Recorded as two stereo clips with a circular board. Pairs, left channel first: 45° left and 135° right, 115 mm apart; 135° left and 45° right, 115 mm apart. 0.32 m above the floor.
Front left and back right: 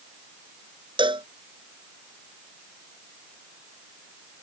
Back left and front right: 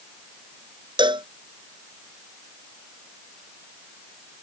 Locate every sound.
1.0 s a cowbell: 90° right